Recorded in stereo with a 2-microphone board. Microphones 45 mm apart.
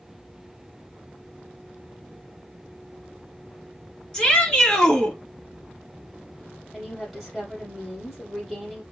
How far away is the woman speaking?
About 3.5 m.